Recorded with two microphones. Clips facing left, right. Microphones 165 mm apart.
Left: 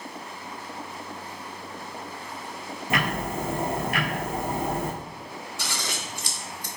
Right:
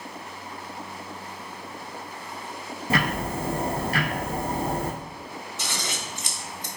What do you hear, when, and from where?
2.9 s ticking: 35° right (ahead or behind), 1.1 m
5.6 s scissors: 20° right (ahead or behind), 0.6 m